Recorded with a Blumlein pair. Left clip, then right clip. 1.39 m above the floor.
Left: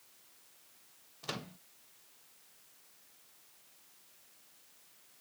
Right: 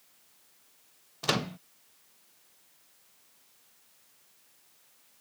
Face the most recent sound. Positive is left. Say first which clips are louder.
# right 13 dB
turn(degrees=-30)